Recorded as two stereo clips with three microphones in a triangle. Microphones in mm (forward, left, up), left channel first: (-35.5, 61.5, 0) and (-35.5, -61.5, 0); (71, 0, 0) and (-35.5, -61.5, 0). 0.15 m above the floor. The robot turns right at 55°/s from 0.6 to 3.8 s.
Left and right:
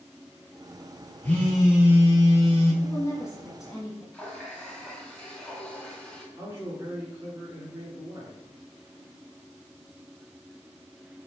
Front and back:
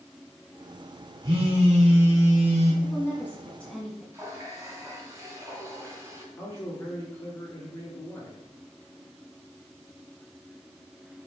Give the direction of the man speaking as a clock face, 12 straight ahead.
1 o'clock.